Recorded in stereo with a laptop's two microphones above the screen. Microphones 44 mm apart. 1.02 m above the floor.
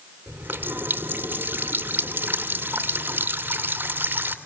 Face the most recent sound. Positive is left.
turn(degrees=-50)  # may be behind; listen again after turning